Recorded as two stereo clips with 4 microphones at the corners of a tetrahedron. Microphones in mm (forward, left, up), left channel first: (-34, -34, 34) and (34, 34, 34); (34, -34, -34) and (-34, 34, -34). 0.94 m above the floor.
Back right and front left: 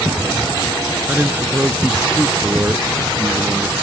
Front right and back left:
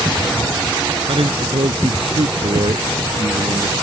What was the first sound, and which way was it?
A man speaking, 115° left.